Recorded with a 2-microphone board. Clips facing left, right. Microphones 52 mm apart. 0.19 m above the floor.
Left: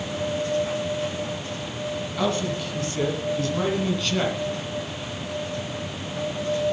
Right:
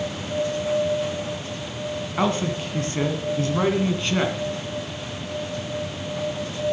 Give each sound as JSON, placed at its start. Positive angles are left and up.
{"t": 2.2, "sound": "a man speaking", "side_deg": -35, "distance_m": 1.9}